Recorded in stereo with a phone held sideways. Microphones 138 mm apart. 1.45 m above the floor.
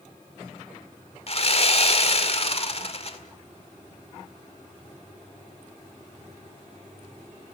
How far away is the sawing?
About 1.9 m.